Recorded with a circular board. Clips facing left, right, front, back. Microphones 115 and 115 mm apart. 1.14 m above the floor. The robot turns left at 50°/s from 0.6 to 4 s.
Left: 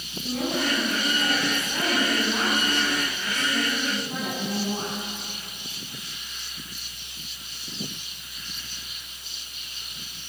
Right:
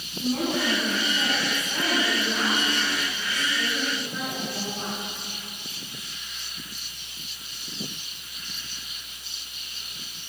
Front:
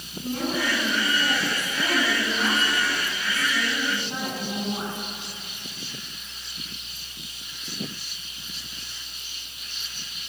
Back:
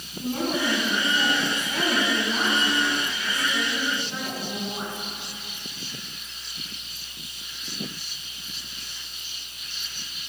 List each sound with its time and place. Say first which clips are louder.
0.2 s a woman speaking: right 2 dB, back 1 dB; 135° right, 10 m; by 5.0 s 55° left, 10 m